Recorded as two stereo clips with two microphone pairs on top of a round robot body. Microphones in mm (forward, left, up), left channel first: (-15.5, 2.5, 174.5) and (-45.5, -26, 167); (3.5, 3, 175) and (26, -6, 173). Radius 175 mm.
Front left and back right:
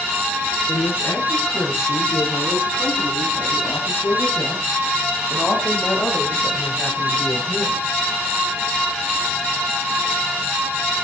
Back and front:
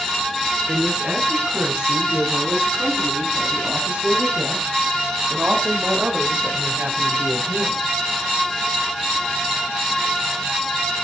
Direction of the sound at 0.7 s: 15° left.